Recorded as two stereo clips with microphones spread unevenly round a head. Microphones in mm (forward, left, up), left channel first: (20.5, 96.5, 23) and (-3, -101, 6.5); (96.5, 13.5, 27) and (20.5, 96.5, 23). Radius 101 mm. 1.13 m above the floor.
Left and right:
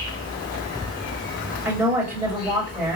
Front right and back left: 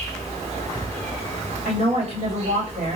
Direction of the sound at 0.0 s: 125° left.